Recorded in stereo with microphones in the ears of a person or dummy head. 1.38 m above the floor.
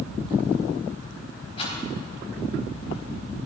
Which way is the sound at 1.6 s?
30° left (ahead or behind).